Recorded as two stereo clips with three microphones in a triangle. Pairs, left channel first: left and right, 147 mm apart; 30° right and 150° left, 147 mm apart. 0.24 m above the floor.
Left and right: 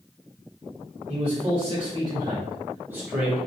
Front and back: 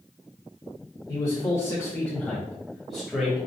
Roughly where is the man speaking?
Right.